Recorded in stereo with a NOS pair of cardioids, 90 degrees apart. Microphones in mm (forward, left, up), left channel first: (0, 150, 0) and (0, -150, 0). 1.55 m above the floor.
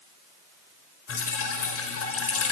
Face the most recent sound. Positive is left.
turn(degrees=50)